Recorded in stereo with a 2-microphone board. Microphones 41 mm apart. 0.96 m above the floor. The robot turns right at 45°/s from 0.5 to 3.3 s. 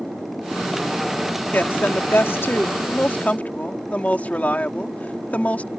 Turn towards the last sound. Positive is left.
turn(degrees=140)